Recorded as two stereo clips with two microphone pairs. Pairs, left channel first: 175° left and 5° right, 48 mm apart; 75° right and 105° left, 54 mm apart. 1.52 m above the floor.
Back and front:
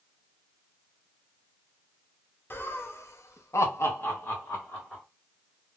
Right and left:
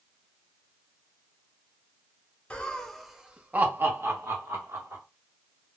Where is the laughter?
145° right, 0.7 m; by 5.0 s 120° left, 1.1 m.